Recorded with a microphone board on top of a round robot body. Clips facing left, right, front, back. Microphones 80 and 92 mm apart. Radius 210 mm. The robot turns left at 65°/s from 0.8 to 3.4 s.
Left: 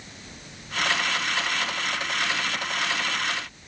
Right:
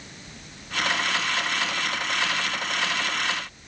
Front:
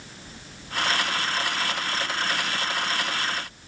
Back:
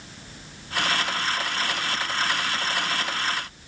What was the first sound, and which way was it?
Only background noise.